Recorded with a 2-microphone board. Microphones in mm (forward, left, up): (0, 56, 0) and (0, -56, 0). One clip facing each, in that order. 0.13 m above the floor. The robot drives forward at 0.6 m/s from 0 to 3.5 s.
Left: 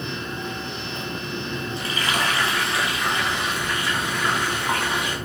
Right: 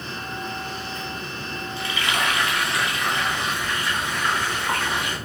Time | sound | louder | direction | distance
1.8 | frying | right 1 dB | 45° left (ahead or behind) | 0.8 m